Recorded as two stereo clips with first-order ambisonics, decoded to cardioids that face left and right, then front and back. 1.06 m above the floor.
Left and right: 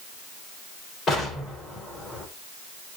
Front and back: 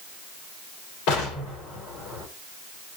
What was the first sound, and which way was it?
An explosion, 20° left.